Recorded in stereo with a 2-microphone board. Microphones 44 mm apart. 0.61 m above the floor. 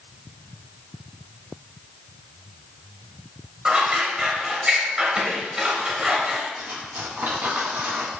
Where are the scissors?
25° right (ahead or behind), 1.9 m.